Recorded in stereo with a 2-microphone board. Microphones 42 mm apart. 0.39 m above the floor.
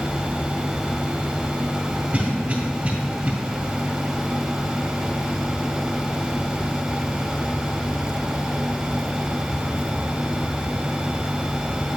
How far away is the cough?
About 1.9 m.